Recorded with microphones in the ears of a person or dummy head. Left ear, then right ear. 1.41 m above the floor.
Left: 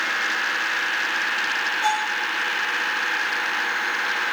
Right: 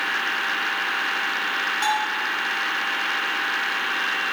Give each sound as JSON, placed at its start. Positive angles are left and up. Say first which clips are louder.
{"t": 1.8, "sound": "a bell", "louder": "even", "side_deg": -45, "distance_m": 5.0}